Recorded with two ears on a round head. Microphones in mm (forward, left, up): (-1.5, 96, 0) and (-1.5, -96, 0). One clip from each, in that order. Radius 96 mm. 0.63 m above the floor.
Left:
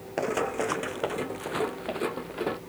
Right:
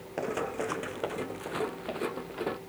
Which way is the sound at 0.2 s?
15° left (ahead or behind).